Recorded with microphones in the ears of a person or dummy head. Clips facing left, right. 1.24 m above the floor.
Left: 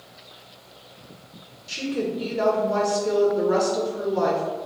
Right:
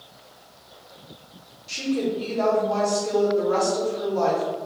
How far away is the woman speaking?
About 0.8 m.